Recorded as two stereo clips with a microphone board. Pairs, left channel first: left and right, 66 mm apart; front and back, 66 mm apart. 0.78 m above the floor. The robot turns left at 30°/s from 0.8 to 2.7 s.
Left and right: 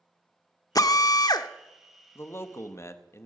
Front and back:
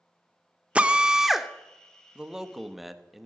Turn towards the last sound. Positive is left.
turn(degrees=95)